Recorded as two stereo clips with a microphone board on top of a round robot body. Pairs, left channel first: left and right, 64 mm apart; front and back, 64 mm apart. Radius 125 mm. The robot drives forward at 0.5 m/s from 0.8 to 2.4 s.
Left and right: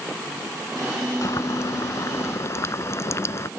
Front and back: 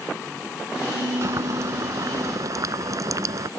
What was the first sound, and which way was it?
Boiling, 135° left.